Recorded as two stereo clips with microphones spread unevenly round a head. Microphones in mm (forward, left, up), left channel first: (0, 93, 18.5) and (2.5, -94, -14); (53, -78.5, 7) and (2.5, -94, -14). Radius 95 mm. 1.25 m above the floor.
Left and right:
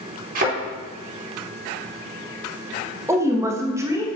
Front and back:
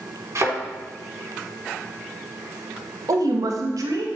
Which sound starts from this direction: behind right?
A thud, at 0.3 s.